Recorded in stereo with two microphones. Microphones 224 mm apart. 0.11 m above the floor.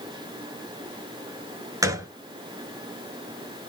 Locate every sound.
1.8 s a gunshot: 15° right (ahead or behind), 0.7 m